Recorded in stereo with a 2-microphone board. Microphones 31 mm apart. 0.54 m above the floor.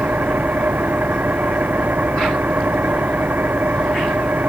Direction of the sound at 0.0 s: 75° right (ahead or behind).